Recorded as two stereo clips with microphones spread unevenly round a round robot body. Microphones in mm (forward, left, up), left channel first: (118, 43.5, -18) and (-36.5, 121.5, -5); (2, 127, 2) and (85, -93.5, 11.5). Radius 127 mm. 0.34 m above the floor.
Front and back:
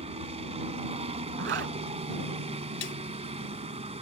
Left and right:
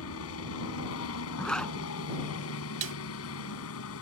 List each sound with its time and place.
0.0 s a helicopter: 105° left
1.4 s a zipper: 160° right
2.8 s a snare drum: 40° right